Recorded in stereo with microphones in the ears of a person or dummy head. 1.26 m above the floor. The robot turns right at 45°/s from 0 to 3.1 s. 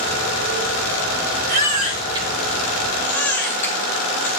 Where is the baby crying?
50° right (ahead or behind), 1.6 m; by 4.3 s 10° left (ahead or behind), 1.6 m.